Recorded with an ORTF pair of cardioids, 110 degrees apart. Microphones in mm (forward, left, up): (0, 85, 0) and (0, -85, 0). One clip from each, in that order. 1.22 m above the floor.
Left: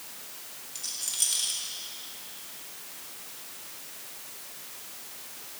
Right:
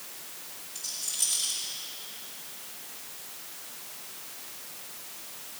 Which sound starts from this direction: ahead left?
A rattle, at 0.8 s.